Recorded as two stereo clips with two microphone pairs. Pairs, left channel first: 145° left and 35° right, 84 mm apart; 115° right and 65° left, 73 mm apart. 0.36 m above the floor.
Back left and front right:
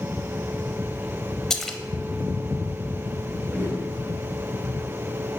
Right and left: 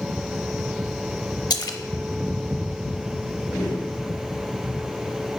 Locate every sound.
1.5 s a splash: 130° right, 0.7 m
3.5 s a whoosh: 100° right, 2.5 m